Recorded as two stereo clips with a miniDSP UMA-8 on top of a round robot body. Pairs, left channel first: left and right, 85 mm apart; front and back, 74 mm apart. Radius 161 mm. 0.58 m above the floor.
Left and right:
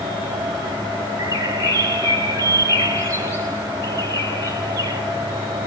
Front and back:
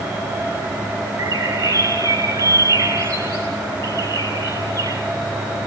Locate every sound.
1.2 s a bird: 145° right, 8.5 m